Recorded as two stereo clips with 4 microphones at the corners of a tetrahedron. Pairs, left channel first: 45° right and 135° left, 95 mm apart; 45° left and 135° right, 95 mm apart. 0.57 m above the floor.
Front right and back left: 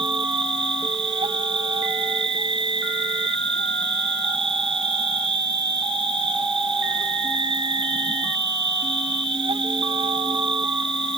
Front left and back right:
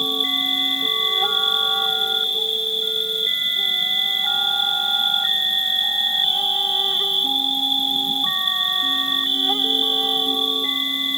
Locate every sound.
0.0 s an insect: 135° left